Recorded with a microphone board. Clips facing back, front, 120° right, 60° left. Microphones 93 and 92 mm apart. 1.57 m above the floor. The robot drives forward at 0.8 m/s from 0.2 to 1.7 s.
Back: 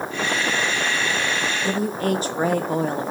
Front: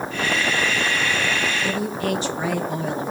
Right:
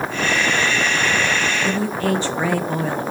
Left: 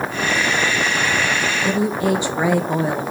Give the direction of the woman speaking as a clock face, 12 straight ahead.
8 o'clock.